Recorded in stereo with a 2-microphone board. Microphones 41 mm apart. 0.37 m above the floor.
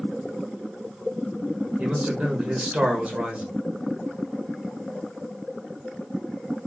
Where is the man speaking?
35° right (ahead or behind), 1.2 m.